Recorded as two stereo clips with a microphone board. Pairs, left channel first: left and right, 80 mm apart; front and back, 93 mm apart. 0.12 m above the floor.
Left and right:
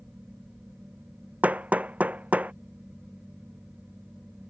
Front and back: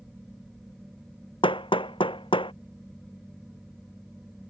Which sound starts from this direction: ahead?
Hammering, at 1.4 s.